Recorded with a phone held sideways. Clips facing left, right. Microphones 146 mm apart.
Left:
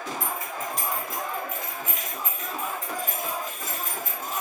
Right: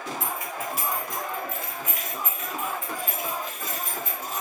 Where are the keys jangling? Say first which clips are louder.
Even; 20° right (ahead or behind), 1.0 m; by 4.4 s 55° left (ahead or behind), 2 m.